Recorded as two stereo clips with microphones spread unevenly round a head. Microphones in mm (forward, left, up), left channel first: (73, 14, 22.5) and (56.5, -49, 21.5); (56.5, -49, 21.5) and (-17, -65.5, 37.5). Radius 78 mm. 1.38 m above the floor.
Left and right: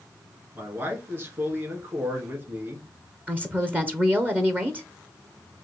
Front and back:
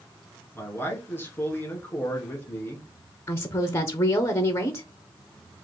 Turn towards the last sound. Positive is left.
turn(degrees=-40)